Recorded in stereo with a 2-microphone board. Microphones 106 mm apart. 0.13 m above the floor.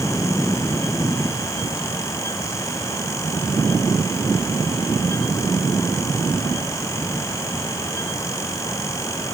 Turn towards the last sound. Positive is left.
No sound to turn to.